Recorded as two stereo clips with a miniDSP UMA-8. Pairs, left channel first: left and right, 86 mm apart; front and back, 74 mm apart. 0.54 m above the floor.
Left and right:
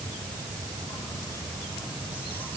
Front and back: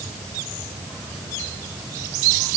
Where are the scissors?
I don't hear scissors.